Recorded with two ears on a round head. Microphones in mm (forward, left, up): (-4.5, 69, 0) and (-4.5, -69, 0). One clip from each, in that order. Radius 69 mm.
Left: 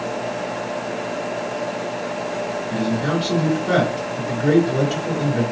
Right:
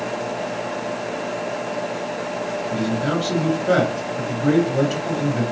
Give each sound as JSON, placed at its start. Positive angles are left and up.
{"t": 2.7, "sound": "a man speaking", "side_deg": 0, "distance_m": 3.0}